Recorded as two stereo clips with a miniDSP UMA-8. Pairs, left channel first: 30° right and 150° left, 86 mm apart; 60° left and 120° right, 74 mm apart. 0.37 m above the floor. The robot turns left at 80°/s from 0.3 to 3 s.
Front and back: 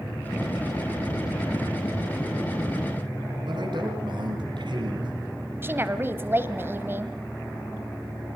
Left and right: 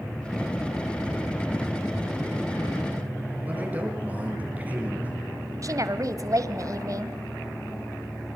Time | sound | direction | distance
3.4 | a man speaking | 175° left | 6 m
5.6 | a woman speaking | 150° right | 1.6 m